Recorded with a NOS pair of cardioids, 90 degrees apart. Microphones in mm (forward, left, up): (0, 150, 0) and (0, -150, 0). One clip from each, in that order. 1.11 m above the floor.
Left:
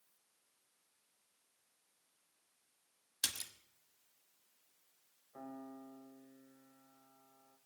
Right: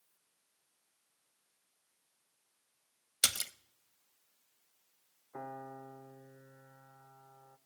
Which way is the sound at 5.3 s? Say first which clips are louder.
Right 6 dB; 60° right.